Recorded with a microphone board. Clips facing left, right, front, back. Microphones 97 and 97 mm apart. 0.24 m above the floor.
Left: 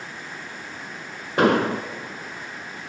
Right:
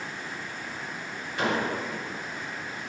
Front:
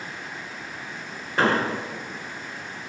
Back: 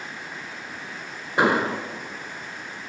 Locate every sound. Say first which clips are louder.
1.4 s an explosion: left 9 dB, back 1 dB; 105° left, 0.9 m